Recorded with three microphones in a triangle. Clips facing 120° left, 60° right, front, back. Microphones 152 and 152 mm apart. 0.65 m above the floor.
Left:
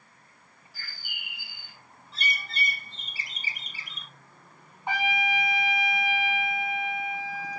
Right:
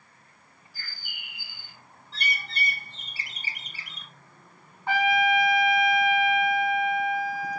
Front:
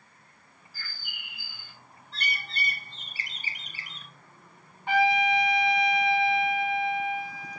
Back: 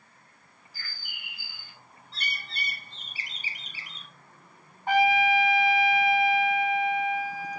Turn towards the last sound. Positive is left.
turn(degrees=180)